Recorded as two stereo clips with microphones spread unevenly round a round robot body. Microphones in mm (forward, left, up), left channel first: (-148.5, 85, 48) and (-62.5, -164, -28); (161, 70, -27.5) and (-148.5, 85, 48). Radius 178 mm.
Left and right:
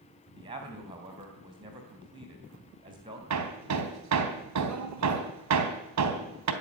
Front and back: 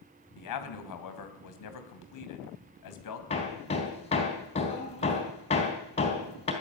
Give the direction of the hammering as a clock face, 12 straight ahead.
2 o'clock.